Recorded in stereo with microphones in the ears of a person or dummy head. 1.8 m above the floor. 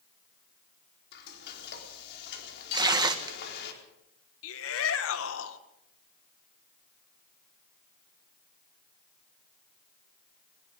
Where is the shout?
85° left, 1.9 m.